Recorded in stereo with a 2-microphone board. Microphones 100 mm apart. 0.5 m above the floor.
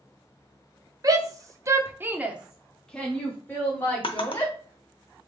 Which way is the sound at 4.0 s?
60° left (ahead or behind).